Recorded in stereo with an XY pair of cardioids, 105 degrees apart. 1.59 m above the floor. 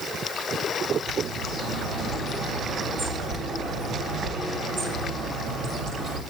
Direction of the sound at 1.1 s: 55° right.